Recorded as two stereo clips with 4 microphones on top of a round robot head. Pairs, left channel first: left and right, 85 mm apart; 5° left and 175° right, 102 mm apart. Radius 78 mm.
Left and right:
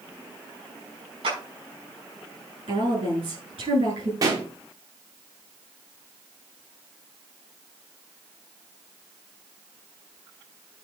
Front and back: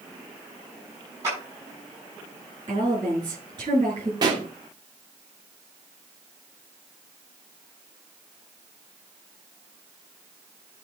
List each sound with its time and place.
1.2 s a clap: 105° right, 6 m
2.7 s a woman speaking: 120° right, 8 m
4.2 s a pop: 130° right, 1.8 m